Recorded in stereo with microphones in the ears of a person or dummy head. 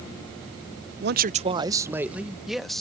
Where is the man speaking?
55° right (ahead or behind); by 2.8 s centre (ahead or behind).